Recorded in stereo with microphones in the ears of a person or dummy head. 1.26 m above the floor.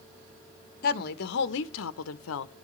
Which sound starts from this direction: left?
A woman speaking, at 0.8 s.